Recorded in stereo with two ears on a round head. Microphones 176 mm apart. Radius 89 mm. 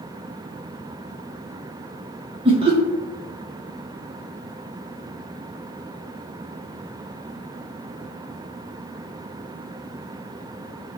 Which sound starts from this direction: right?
Laughter, at 2.5 s.